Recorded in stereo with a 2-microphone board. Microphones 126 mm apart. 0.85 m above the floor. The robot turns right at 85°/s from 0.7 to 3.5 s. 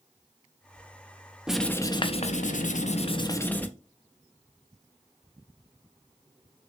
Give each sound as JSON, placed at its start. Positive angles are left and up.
{"t": 1.5, "sound": "writing", "azimuth_deg": -5, "distance_m": 0.5}